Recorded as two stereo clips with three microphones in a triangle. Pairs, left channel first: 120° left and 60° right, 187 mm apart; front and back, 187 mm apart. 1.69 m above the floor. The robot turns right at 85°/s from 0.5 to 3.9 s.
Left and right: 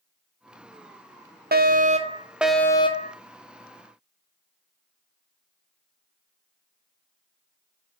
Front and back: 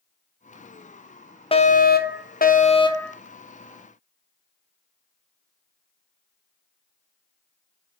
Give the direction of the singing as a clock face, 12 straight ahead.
No singing in this recording.